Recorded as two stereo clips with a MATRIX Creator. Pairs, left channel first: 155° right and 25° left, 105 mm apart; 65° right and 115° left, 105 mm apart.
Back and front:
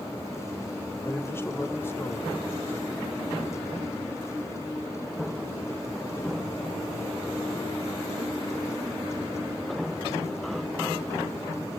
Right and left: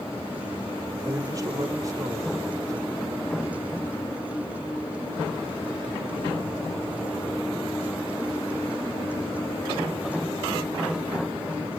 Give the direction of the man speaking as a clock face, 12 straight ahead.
7 o'clock.